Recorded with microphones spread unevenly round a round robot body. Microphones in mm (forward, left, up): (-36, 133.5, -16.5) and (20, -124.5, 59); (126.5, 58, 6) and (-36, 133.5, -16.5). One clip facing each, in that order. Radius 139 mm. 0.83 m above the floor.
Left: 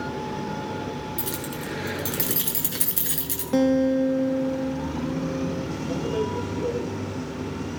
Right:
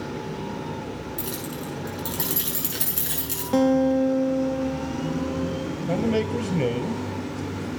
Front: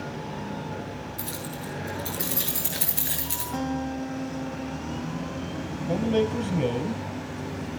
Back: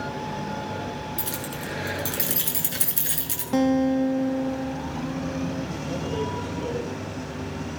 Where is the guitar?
165° right, 0.7 m.